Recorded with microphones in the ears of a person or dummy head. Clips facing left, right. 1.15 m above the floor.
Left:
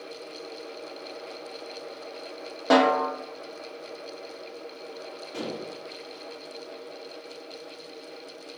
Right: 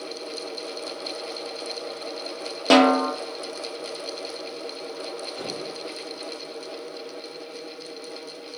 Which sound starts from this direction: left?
Dishes clattering, at 5.3 s.